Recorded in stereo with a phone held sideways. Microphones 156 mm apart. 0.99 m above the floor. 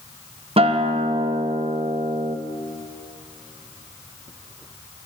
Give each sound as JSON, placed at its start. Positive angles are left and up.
{"t": 0.6, "sound": "a guitar", "side_deg": -40, "distance_m": 0.5}